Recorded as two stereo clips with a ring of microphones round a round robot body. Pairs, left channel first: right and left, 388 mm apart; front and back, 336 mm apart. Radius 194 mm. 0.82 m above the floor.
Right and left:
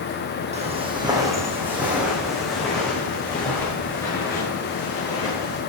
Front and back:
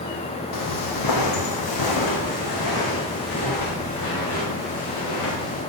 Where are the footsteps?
20° left, 2.5 m; by 5.6 s 10° right, 7 m.